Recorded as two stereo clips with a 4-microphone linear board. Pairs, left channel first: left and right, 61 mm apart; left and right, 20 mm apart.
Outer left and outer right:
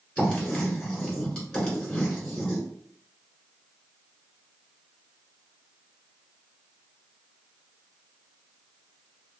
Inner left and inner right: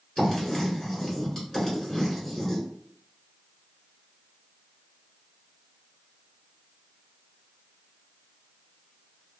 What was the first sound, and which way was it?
Writing, 15° left (ahead or behind).